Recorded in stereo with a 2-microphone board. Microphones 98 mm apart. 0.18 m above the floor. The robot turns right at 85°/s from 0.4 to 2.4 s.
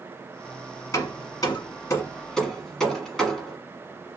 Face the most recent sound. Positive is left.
turn(degrees=5)  # may be behind; listen again after turning